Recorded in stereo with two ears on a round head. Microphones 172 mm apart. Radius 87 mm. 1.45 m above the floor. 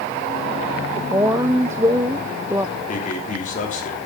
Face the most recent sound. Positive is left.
turn(degrees=45)  # may be behind; listen again after turning